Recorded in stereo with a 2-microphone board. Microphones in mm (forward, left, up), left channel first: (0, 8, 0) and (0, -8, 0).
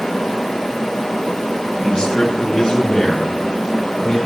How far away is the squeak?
No squeak in this recording.